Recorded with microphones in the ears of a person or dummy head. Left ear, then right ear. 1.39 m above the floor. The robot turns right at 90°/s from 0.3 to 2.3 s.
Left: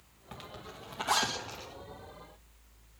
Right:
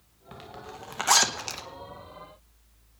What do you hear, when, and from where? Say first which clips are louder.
0.3 s a zipper: right 4 dB; 5° left (ahead or behind), 2 m; by 1.6 s 65° right (ahead or behind), 2 m